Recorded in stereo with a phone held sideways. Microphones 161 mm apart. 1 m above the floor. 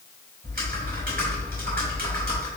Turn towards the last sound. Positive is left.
turn(degrees=-70)  # may be behind; listen again after turning